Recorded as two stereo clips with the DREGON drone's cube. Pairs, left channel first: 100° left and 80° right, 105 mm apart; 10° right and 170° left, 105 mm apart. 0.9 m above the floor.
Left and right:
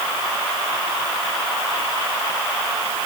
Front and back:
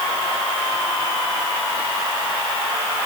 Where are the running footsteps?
I don't hear running footsteps.